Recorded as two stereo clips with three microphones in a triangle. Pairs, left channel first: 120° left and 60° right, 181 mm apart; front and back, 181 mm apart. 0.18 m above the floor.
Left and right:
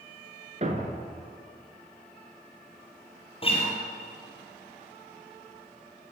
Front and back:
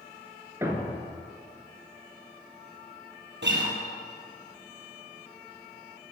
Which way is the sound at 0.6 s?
105° right.